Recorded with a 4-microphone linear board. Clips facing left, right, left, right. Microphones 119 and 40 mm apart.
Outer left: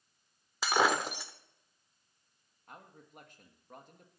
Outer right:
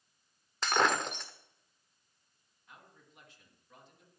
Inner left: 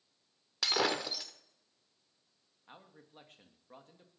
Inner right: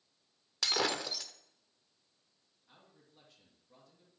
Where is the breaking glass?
5° left (ahead or behind), 1.2 m.